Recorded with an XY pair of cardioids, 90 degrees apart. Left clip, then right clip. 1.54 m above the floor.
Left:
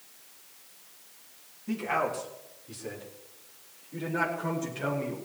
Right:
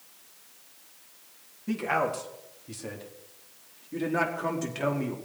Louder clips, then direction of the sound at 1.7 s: Right 2 dB; 45° right.